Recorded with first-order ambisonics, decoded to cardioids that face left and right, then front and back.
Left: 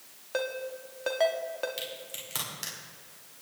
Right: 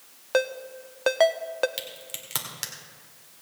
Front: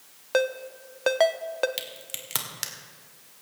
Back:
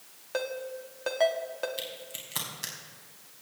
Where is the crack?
25° right, 1.9 m.